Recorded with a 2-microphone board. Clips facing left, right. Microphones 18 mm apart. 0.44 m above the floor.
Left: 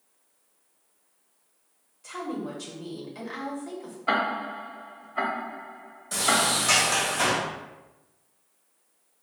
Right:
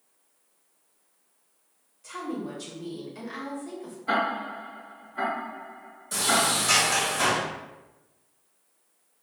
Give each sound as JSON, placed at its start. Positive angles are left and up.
{"t": 2.0, "sound": "a woman speaking", "side_deg": 0, "distance_m": 1.3}
{"t": 4.1, "sound": "ticking", "side_deg": 40, "distance_m": 0.7}
{"t": 6.1, "sound": "a sliding door", "side_deg": 5, "distance_m": 1.3}